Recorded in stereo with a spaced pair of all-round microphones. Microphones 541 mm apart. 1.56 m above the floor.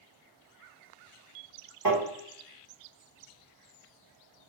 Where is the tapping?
40° right (ahead or behind), 1.7 m.